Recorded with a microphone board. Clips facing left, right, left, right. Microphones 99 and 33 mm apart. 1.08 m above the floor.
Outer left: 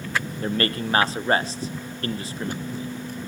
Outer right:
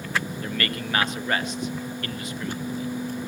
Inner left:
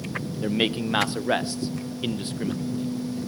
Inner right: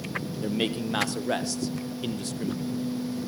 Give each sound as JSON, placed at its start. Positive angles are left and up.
{"t": 0.4, "sound": "a man speaking", "side_deg": 30, "distance_m": 0.9}